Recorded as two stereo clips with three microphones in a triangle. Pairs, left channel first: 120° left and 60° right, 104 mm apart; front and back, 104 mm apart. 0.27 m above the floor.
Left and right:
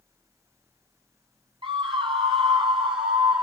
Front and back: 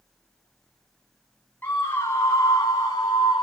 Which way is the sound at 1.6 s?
65° right.